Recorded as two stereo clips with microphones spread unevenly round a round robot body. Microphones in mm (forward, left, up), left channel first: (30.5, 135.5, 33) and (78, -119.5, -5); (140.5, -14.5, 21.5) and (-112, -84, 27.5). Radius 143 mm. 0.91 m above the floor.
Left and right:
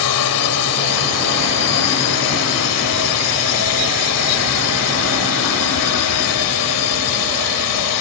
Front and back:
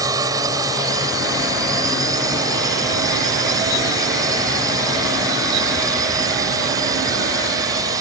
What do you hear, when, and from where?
0.0 s a drone: 120° left